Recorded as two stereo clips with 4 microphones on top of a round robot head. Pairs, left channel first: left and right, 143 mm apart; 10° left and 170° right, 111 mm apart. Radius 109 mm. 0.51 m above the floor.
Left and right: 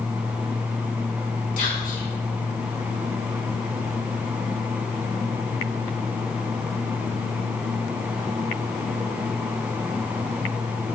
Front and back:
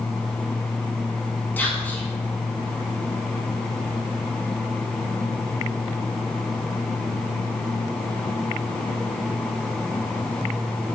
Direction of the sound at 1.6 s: 85° left.